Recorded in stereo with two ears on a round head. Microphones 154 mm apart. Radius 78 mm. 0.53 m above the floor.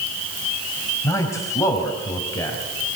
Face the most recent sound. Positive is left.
turn(degrees=20)  # may be behind; listen again after turning